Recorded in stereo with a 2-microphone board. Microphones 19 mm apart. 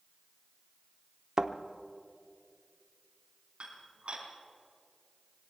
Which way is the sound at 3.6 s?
55° right (ahead or behind).